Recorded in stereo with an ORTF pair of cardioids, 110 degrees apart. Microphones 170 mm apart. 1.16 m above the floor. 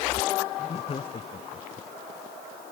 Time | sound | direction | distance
0.6 | laughter | 35° left | ?